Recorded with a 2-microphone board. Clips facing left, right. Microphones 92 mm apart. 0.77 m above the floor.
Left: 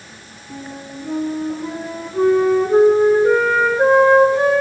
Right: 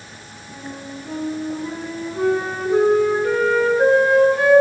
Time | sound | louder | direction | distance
0.5 | a flute | left 1 dB | 30° left (ahead or behind) | 7.5 m